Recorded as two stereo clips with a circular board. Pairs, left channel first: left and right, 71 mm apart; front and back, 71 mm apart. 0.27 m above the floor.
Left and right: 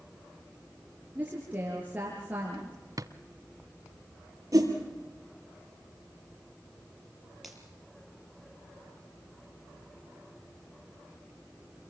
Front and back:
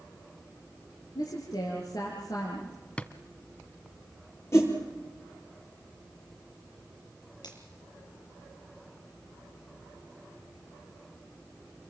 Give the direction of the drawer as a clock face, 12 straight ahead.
2 o'clock.